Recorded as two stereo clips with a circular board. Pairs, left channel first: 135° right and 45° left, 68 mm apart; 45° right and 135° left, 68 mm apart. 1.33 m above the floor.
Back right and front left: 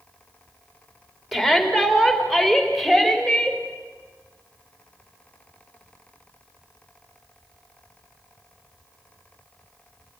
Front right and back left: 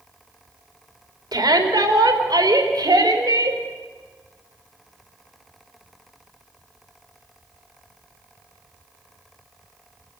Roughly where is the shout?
Behind left.